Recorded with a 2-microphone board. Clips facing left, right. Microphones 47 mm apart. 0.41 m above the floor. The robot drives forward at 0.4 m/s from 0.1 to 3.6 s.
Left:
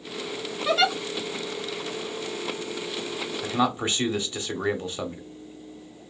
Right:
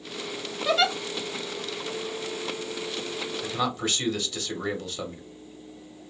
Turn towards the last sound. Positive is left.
turn(degrees=20)  # may be behind; listen again after turning